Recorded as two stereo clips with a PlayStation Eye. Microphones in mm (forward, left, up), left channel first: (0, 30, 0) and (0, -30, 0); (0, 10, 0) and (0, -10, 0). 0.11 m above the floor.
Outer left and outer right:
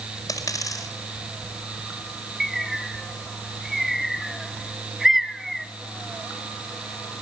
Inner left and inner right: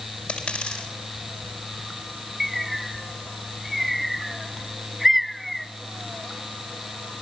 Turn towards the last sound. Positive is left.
turn(degrees=0)  # may be behind; listen again after turning